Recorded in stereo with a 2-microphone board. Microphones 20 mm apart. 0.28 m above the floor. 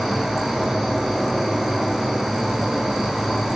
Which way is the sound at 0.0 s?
40° right (ahead or behind).